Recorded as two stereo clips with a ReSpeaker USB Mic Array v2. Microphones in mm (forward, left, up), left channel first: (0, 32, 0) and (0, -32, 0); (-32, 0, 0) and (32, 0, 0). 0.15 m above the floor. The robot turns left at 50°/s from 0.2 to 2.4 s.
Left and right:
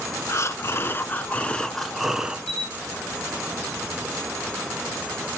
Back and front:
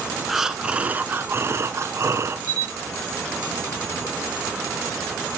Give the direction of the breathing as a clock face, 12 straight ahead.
9 o'clock.